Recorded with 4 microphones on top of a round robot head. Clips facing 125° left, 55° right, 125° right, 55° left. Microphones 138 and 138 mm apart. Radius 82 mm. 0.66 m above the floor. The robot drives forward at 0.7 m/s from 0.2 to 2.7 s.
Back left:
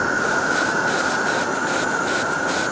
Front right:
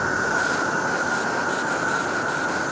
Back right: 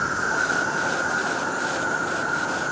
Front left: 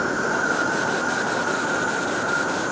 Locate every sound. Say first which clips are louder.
0.0 s an insect: back left 3 dB, front left 4 dB; 105° right, 1.1 m; by 2.7 s 155° right, 2.5 m